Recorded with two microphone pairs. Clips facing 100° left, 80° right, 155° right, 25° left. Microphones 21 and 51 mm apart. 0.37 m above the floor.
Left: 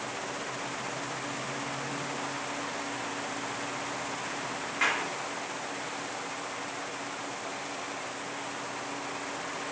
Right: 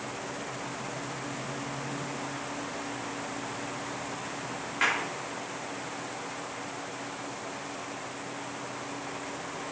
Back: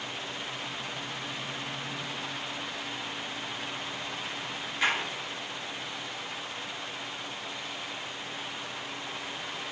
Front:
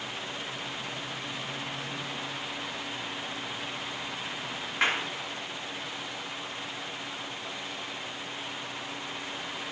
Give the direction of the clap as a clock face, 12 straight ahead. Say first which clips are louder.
Right 1 dB, front 1 dB; 12 o'clock.